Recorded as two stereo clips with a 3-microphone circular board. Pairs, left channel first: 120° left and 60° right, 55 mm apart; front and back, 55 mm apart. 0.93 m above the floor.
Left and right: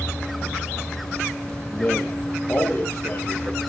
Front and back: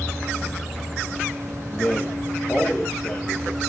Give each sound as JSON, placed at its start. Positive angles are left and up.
{"t": 1.7, "sound": "a man speaking", "azimuth_deg": 55, "distance_m": 0.9}